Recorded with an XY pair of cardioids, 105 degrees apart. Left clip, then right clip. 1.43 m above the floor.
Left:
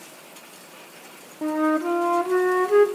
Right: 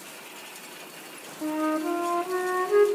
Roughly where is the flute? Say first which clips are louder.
Left 5 dB; ahead left.